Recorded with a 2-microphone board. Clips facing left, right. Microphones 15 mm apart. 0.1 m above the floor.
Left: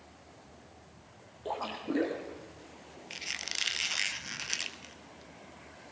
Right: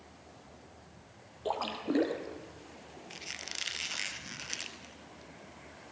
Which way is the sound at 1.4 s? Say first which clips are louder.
Right 2 dB; 20° right (ahead or behind).